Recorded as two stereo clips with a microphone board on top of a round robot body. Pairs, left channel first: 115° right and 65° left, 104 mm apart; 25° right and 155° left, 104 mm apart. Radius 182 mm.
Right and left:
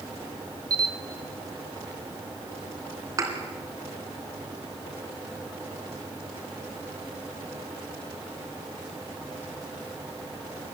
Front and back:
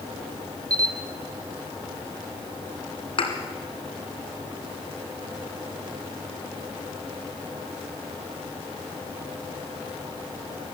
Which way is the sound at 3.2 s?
10° left.